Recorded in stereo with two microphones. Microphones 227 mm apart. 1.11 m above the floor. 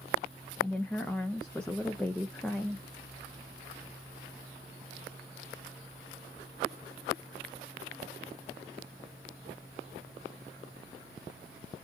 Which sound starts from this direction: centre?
A woman speaking, at 0.6 s.